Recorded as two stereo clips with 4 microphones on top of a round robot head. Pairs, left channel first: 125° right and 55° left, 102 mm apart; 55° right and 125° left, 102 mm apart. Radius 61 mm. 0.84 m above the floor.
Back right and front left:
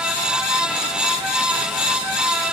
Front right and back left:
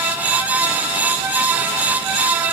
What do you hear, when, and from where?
Only background noise.